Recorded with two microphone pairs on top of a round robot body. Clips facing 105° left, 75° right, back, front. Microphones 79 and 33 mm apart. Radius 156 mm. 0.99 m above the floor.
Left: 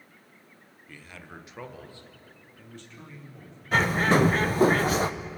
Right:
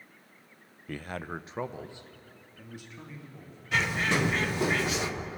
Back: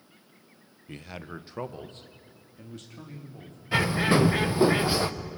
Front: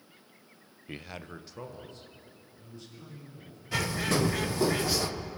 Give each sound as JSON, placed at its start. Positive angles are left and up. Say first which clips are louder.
{"t": 0.9, "sound": "a man speaking", "louder": "right 9 dB, back 2 dB", "azimuth_deg": -70, "distance_m": 0.8}
{"t": 3.7, "sound": "a bird", "louder": "left 6 dB, back 6 dB", "azimuth_deg": 135, "distance_m": 1.1}